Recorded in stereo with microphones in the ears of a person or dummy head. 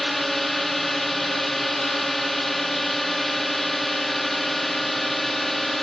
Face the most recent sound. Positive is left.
turn(degrees=0)  # may be behind; listen again after turning